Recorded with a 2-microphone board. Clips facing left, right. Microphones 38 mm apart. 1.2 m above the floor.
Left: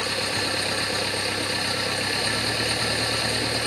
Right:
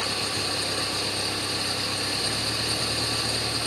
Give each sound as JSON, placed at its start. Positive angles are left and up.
{"t": 0.0, "sound": "an engine running", "side_deg": 40}